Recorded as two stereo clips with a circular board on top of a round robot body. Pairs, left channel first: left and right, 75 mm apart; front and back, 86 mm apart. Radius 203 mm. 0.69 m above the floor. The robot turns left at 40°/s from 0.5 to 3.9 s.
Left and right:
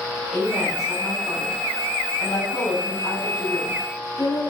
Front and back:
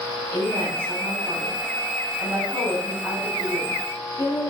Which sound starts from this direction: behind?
A woman speaking, at 0.3 s.